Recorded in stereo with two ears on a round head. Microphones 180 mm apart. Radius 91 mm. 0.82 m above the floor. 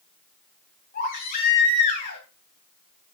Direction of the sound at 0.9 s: 50° left (ahead or behind).